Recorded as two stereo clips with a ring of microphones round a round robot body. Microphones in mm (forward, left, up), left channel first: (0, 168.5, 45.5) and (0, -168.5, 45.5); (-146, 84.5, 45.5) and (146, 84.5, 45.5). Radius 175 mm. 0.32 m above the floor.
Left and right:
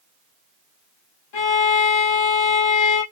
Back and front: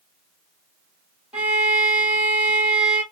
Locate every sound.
1.3 s a violin: 85° left, 2.0 m